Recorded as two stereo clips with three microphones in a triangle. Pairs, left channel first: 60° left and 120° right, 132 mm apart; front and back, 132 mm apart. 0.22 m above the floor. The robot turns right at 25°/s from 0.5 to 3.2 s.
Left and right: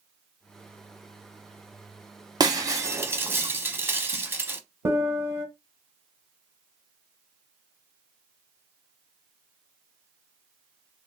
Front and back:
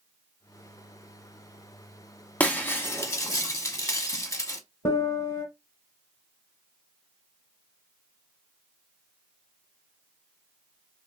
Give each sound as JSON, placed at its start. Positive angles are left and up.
{"t": 2.4, "sound": "breaking glass", "azimuth_deg": -75, "distance_m": 0.7}
{"t": 4.8, "sound": "a piano", "azimuth_deg": -50, "distance_m": 1.1}